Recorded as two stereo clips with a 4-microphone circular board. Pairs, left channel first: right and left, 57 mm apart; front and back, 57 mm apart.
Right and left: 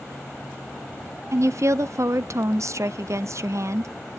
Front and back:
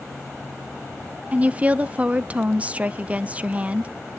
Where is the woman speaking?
115° left, 0.7 m.